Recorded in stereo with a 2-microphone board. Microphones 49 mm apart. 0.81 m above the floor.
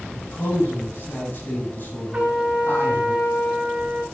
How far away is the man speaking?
About 7 m.